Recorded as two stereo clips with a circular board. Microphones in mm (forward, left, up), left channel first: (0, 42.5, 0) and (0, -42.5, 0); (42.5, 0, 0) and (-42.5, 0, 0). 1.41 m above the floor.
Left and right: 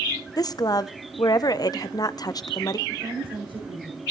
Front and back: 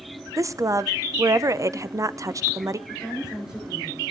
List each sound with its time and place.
0.4 s a woman speaking: 130° left, 0.7 m
2.9 s a woman speaking: 100° right, 6 m